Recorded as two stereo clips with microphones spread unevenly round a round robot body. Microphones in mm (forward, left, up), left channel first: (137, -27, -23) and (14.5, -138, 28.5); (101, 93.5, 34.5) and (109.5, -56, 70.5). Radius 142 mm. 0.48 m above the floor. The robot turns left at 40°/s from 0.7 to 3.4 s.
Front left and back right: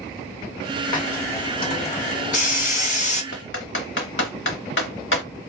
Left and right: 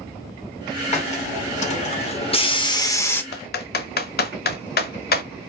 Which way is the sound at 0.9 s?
115° left.